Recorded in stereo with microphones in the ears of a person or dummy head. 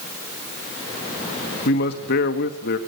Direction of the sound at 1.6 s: 55° left (ahead or behind).